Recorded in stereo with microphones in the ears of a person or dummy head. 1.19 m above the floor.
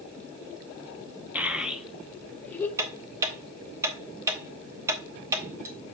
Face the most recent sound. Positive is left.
turn(degrees=-15)  # may be behind; listen again after turning